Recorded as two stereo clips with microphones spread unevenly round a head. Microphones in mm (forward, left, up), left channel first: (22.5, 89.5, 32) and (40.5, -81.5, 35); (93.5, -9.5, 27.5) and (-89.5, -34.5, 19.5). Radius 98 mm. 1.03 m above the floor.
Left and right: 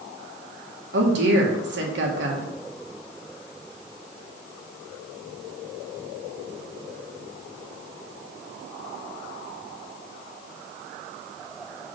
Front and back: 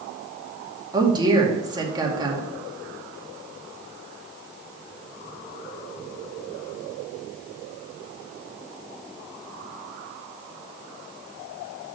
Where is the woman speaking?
105° right, 2 m.